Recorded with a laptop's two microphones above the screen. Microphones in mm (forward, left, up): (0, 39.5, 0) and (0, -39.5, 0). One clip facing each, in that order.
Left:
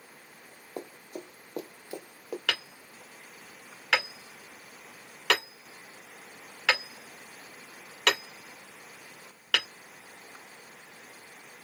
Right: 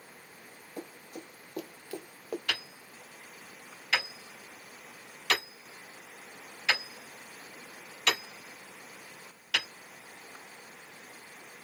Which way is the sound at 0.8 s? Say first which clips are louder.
Left 3 dB; 55° left (ahead or behind).